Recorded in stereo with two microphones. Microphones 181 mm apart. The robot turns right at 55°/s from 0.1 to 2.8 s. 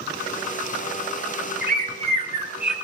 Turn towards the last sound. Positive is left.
turn(degrees=5)